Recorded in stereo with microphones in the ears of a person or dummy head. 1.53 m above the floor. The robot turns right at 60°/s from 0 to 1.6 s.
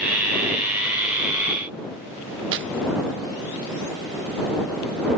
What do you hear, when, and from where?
2.5 s tearing paper: 65° right (ahead or behind)